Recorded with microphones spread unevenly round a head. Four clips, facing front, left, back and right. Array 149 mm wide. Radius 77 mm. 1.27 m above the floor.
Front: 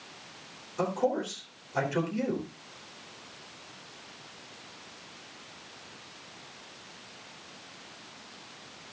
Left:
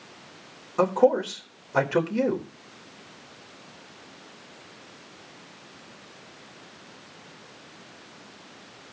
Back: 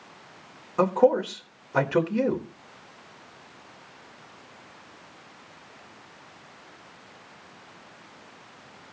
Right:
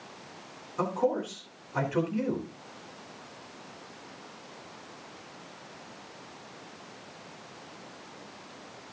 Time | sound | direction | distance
0.8 | a man speaking | 125° left | 4 m